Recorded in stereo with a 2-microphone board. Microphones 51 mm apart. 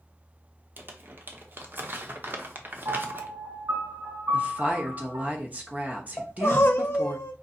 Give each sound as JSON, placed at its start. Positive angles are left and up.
{"t": 0.8, "sound": "crumpling", "side_deg": -45, "distance_m": 0.7}
{"t": 2.9, "sound": "a piano", "side_deg": -70, "distance_m": 2.0}
{"t": 4.3, "sound": "a woman speaking", "side_deg": -35, "distance_m": 0.9}
{"t": 6.2, "sound": "crying", "side_deg": 50, "distance_m": 0.7}